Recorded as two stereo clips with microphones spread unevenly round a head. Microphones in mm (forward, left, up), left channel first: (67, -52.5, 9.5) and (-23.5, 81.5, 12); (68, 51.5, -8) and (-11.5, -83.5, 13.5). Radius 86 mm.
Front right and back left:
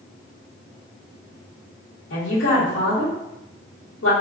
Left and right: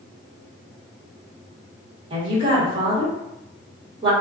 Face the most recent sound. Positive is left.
turn(degrees=-60)